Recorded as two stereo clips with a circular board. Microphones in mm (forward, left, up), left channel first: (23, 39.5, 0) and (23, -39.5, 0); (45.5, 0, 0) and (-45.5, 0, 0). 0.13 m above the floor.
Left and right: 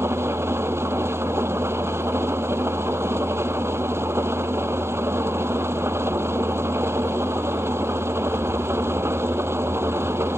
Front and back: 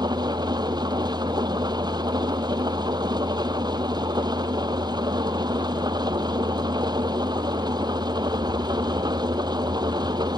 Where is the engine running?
145° right.